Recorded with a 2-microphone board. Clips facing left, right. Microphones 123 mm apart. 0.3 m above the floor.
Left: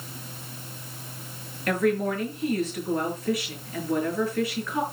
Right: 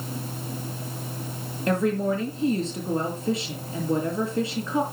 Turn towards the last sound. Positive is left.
turn(degrees=-25)  # may be behind; listen again after turning